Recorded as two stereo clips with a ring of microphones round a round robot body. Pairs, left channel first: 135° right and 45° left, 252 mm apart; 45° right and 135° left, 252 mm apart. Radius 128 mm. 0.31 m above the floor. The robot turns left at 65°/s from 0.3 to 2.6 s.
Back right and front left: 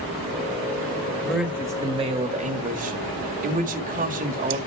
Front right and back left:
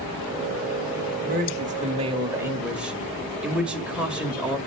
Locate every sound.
1.2 s a man speaking: 140° left, 1.5 m; by 4.6 s 55° left, 1.5 m